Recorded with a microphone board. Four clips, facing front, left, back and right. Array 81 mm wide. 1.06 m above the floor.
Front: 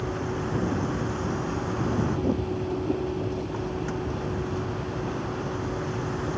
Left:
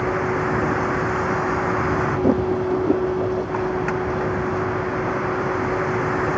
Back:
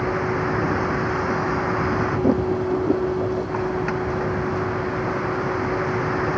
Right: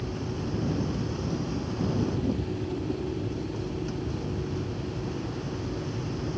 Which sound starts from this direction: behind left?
A vehicle, at 0.0 s.